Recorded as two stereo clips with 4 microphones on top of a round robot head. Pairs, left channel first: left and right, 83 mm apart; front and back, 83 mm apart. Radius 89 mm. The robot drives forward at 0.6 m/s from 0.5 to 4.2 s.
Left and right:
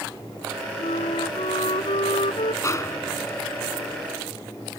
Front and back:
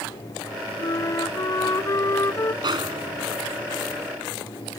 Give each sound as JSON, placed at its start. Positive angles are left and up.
{"t": 0.8, "sound": "a flute", "azimuth_deg": 50}
{"t": 2.6, "sound": "a snare drum", "azimuth_deg": 145}